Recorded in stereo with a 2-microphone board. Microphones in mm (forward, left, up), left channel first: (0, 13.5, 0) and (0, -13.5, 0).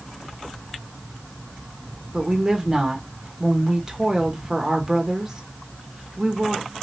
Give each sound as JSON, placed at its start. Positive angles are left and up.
{"t": 2.1, "sound": "a woman speaking", "side_deg": -25, "distance_m": 1.2}